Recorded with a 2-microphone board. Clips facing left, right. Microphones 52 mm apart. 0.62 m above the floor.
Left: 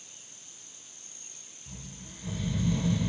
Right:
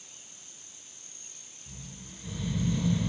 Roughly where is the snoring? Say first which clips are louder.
Left 1 dB; left.